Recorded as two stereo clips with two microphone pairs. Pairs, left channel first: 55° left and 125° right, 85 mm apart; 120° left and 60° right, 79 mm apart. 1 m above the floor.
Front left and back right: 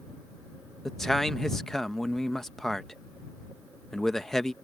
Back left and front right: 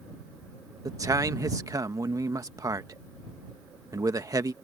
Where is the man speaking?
25° right.